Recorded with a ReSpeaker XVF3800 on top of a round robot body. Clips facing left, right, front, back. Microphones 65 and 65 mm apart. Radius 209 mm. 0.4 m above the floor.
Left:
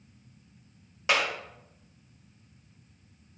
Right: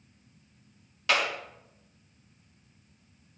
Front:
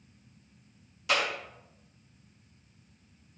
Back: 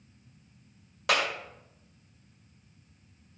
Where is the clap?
160° left, 2.5 m.